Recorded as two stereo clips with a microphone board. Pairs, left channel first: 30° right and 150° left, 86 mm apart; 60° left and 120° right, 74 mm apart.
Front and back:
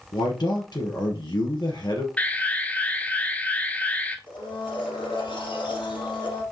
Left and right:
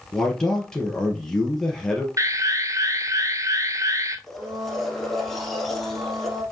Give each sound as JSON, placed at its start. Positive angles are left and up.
{"t": 0.1, "sound": "a man speaking", "azimuth_deg": -20, "distance_m": 3.0}
{"t": 2.2, "sound": "an alarm", "azimuth_deg": -95, "distance_m": 1.2}
{"t": 4.3, "sound": "a blender", "azimuth_deg": -30, "distance_m": 3.0}